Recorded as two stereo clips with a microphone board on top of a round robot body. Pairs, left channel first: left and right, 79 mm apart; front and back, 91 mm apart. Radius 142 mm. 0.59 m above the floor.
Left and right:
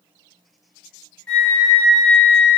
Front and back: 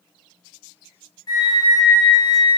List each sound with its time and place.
1.3 s a flute: 15° left, 1.3 m